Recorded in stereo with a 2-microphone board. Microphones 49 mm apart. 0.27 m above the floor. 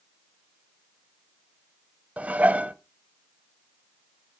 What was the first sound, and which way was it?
Dishes clattering, 30° right (ahead or behind).